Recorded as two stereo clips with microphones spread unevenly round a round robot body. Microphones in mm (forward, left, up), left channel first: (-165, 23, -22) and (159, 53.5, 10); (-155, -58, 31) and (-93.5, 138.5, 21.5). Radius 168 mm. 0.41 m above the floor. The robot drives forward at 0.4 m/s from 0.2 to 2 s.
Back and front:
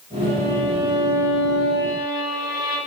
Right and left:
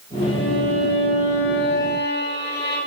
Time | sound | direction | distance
0.2 | a violin | 140° right | 5.5 m